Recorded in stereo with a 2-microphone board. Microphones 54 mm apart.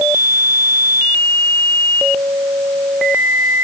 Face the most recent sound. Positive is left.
No sound to turn to.